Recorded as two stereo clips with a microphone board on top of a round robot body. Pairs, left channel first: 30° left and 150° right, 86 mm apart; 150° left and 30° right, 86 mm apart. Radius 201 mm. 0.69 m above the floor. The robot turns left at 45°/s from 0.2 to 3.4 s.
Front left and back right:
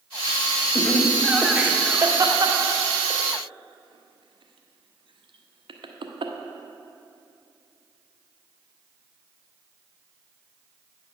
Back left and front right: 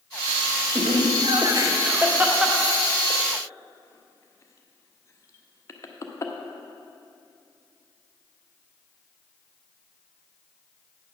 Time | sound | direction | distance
0.8 | laughter | 40° right | 1.1 m